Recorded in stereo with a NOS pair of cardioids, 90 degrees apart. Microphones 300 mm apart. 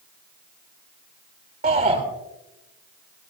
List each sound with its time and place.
1.6 s a shout: 30° right, 3 m